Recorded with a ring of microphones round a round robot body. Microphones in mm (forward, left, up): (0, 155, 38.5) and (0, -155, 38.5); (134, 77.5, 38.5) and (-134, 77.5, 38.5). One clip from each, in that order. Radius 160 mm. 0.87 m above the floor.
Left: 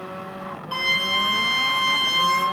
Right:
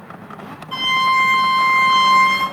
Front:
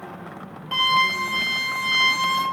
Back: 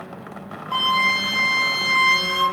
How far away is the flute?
About 3.5 m.